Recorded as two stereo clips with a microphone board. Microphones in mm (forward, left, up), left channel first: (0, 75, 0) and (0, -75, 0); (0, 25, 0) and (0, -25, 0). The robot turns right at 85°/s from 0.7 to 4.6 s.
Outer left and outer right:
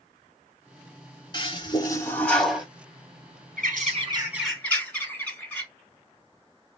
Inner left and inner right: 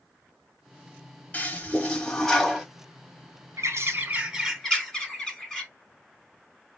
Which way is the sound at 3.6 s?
80° right.